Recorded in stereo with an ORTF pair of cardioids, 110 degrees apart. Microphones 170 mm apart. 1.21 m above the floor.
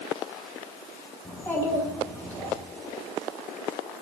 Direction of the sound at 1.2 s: 10° left.